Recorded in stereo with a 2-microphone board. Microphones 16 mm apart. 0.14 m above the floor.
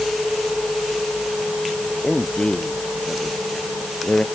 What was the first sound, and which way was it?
A man speaking, 70° left (ahead or behind).